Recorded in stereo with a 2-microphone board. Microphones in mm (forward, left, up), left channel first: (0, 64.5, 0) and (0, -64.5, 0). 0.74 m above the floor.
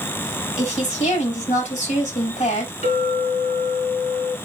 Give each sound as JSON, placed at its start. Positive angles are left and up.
{"t": 0.6, "sound": "a woman speaking", "side_deg": 75, "distance_m": 4.0}
{"t": 2.8, "sound": "a clink", "side_deg": 65, "distance_m": 3.0}